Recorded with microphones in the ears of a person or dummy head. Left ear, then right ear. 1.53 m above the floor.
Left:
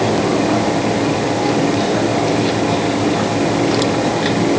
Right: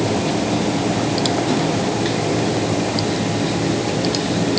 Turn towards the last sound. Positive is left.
No sound to turn to.